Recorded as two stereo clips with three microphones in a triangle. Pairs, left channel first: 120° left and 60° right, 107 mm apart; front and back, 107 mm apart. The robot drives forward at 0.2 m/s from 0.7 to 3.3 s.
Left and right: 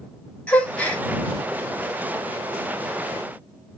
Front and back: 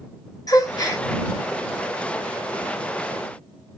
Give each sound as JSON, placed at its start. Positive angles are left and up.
{"t": 0.5, "sound": "a gasp", "azimuth_deg": 45, "distance_m": 0.6}